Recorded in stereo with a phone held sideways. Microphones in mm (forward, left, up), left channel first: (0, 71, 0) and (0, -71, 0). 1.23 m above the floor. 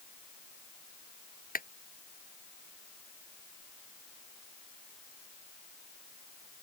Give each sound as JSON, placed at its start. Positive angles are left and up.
{"t": 1.6, "sound": "a clap", "side_deg": 85}